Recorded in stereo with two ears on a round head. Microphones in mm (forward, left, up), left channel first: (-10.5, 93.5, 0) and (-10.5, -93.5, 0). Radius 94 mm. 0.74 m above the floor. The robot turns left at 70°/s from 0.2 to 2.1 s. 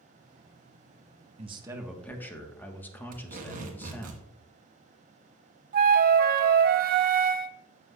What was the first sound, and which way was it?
A man speaking, 140° right.